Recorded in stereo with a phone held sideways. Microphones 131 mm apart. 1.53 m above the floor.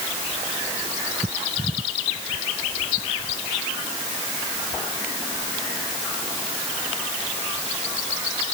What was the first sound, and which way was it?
Only background noise.